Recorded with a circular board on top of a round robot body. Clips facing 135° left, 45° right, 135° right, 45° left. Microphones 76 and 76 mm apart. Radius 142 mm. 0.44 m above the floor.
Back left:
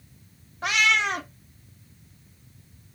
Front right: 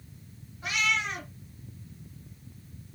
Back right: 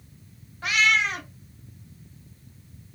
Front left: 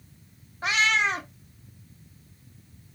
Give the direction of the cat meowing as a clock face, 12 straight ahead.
8 o'clock.